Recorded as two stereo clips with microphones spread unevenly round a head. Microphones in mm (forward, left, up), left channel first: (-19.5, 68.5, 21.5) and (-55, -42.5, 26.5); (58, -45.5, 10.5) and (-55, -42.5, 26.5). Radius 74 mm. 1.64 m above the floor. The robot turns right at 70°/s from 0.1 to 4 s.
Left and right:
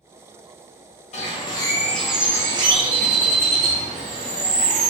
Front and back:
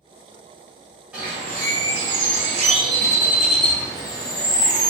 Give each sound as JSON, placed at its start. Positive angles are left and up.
{"t": 1.1, "sound": "a bird", "azimuth_deg": 100, "distance_m": 0.7}